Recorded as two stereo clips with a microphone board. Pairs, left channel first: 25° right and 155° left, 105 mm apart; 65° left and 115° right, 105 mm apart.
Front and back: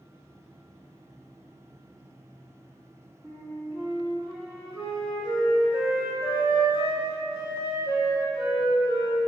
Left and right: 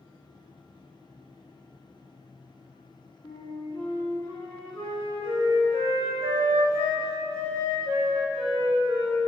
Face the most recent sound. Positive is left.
turn(degrees=95)